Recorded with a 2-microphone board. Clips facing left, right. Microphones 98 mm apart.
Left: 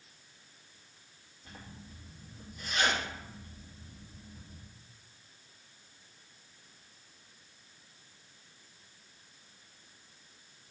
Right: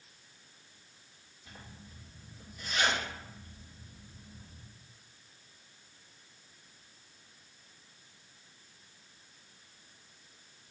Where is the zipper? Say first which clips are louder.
Left 2 dB; 55° left (ahead or behind), 2.5 m.